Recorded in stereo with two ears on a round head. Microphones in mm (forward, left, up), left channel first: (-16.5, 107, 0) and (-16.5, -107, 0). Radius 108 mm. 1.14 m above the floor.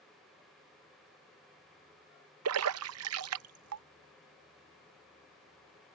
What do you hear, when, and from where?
2.5 s a splash: 70° right (ahead or behind)